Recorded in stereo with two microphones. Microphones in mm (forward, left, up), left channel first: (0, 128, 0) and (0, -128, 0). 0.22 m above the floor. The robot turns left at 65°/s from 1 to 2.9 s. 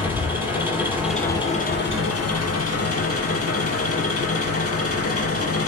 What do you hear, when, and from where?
0.0 s an engine running: 170° right, 4 m; by 5.7 s 65° left, 4 m